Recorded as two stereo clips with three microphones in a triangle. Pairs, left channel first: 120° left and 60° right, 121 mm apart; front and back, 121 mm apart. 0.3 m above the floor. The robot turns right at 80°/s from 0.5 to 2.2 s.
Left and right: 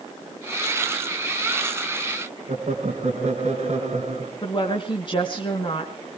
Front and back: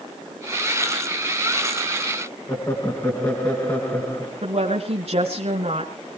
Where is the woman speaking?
160° left, 2 m.